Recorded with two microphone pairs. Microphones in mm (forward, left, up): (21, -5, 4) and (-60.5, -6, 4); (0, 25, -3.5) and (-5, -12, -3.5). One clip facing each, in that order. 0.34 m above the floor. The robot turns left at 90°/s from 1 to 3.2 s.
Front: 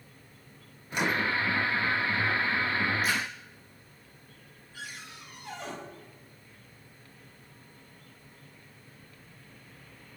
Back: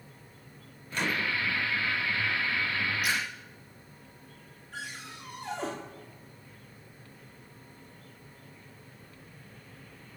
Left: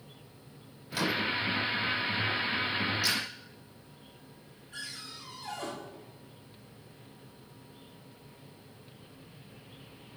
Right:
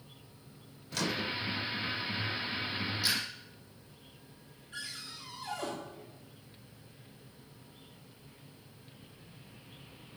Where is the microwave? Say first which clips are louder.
Front 3 dB, left 4 dB; 50° left, 0.6 m; by 1.4 s 20° left, 0.6 m.